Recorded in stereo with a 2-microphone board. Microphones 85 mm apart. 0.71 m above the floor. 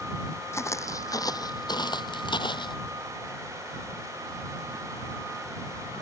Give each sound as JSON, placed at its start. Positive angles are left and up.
{"t": 0.5, "sound": "footsteps", "side_deg": 35}